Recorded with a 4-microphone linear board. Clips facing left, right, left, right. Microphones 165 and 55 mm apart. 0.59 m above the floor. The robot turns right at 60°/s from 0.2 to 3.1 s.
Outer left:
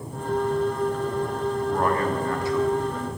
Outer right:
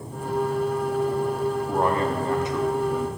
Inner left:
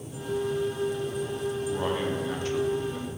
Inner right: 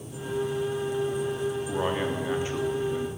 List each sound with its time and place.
1.7 s a man speaking: 20° right (ahead or behind), 0.6 m; by 3.1 s 10° right (ahead or behind), 0.6 m